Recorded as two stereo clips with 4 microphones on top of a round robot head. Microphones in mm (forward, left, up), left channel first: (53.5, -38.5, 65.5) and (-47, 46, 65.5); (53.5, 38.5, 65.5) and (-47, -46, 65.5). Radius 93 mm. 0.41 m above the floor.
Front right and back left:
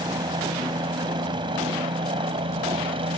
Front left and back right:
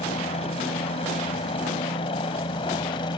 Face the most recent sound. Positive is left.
turn(degrees=95)